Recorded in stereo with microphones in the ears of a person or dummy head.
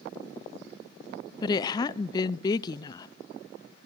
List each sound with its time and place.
1.4 s a woman speaking: 25° left (ahead or behind), 0.5 m